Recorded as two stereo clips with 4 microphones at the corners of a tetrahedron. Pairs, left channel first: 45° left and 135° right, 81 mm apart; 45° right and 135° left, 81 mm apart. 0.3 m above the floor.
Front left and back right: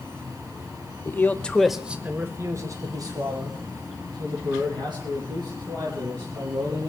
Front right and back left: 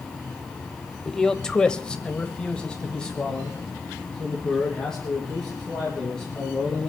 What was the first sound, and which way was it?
A man speaking, 30° left.